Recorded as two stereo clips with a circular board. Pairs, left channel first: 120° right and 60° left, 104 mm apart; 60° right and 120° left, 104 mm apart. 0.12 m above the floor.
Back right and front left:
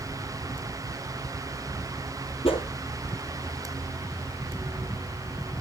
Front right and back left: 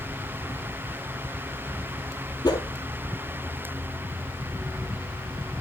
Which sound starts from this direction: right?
A whoosh, at 2.4 s.